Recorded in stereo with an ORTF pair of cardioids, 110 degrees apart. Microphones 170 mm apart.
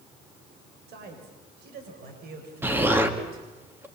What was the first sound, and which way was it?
A man speaking, 70° right.